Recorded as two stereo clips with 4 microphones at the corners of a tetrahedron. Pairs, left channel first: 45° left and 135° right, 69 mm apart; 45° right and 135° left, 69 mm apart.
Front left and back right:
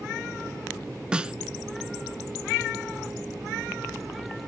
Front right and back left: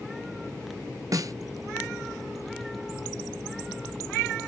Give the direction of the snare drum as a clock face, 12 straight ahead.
7 o'clock.